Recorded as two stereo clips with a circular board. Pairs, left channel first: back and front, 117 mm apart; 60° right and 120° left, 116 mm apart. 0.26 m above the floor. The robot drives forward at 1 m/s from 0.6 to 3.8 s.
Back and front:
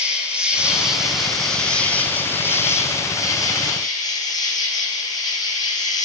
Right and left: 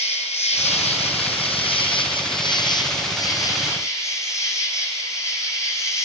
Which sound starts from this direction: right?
An insect, at 0.0 s.